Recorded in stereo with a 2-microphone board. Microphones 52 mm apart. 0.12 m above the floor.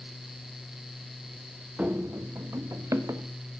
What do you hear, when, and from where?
1.8 s running footsteps: 30° right (ahead or behind), 0.5 m; by 3.3 s 70° right (ahead or behind), 1.3 m